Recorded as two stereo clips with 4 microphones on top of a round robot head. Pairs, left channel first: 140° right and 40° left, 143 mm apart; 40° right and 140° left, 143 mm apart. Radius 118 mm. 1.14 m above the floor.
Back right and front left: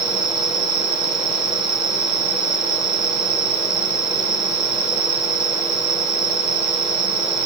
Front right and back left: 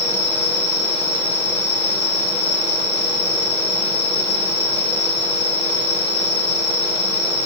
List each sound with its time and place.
0.0 s an insect: 10° left, 3.5 m